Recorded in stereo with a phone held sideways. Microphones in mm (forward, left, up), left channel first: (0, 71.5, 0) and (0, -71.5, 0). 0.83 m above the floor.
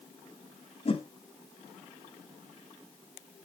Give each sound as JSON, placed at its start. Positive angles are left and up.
{"t": 0.8, "sound": "a whoosh", "side_deg": 45, "distance_m": 1.0}